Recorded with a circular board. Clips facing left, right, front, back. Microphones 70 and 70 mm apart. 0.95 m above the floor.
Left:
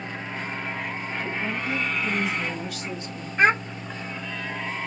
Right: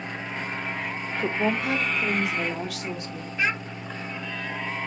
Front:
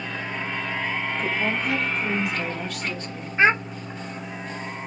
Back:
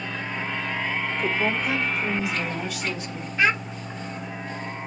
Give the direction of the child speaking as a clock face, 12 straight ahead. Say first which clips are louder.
Left 7 dB, front 3 dB; 10 o'clock.